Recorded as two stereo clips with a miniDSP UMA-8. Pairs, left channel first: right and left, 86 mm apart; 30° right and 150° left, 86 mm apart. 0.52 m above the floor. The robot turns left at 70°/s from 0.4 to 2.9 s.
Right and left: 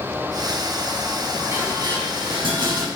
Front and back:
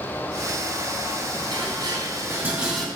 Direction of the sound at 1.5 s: 145° left.